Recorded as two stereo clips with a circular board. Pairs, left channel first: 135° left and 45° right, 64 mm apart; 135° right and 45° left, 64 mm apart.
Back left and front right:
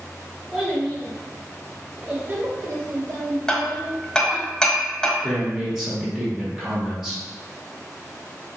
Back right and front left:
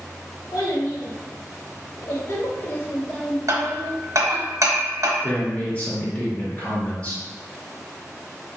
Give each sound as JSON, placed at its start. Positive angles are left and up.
{"t": 0.5, "sound": "a child speaking", "azimuth_deg": -135, "distance_m": 1.6}
{"t": 3.5, "sound": "hammering", "azimuth_deg": 60, "distance_m": 0.6}
{"t": 5.2, "sound": "a man speaking", "azimuth_deg": -120, "distance_m": 1.0}